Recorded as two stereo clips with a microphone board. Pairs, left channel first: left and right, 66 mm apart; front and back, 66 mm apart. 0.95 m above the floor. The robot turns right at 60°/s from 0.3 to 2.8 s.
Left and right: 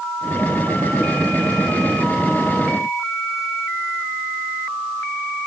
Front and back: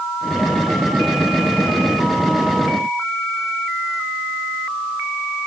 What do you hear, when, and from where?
Only background noise.